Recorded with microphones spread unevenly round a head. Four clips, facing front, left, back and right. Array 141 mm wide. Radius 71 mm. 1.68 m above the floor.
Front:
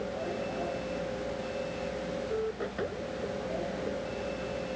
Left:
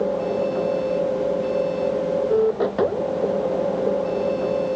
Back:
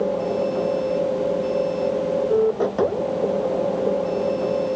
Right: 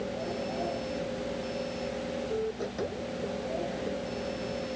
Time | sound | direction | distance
0.0 | a machine running | 135° left | ?